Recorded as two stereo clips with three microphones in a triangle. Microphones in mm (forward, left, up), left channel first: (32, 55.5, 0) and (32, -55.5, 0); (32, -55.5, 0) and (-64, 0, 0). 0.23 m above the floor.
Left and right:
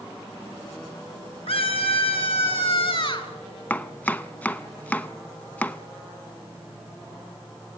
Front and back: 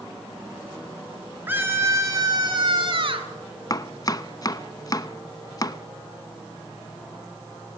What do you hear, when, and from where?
1.5 s a scream: 80° left, 3.5 m; by 3.3 s 125° left, 4 m
3.7 s chopping: 15° left, 0.9 m